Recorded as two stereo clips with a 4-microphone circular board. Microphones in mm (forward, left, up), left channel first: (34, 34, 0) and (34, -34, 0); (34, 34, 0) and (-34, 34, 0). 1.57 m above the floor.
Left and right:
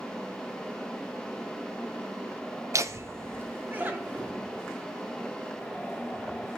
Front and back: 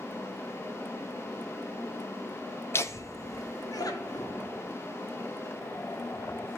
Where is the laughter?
45° right, 0.7 m; by 4.3 s 20° right, 1.5 m.